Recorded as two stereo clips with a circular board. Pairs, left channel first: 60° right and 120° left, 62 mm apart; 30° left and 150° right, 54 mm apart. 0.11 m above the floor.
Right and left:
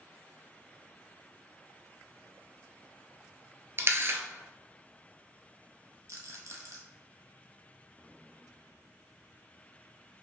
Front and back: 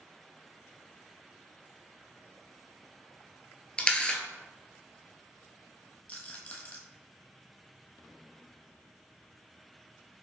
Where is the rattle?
95° left, 1.1 m.